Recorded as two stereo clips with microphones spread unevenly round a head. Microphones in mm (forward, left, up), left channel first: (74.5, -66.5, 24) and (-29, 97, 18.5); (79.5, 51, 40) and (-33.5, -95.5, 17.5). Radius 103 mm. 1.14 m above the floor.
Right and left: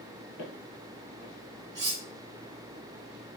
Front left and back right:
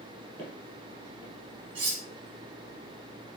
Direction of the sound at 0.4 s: 55° right.